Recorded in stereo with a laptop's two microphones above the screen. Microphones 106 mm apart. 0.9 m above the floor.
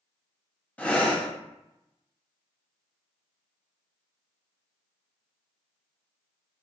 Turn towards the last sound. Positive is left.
turn(degrees=15)  # may be behind; listen again after turning